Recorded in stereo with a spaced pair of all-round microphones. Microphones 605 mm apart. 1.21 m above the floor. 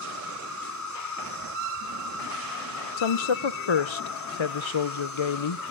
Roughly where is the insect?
Left.